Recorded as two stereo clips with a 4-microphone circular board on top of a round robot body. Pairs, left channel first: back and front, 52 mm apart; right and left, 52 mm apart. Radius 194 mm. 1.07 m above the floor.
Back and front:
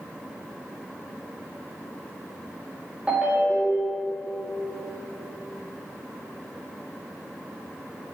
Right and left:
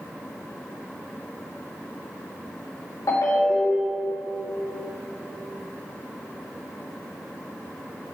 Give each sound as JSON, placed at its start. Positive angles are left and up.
{"t": 3.1, "sound": "a ringtone", "azimuth_deg": -70, "distance_m": 2.0}